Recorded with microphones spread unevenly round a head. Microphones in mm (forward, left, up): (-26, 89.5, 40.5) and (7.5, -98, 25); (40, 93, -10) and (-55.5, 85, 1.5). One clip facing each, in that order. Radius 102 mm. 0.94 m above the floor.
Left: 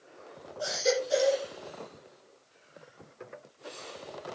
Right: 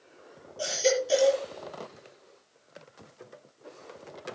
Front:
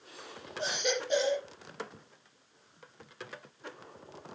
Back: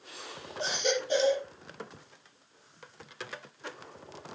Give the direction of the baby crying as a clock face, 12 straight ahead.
3 o'clock.